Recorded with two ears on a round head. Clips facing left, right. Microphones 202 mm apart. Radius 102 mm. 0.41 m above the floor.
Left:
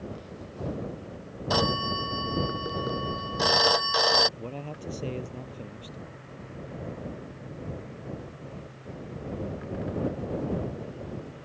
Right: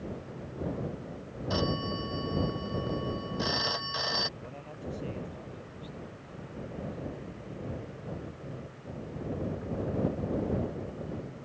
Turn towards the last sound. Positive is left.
turn(degrees=55)  # may be behind; listen again after turning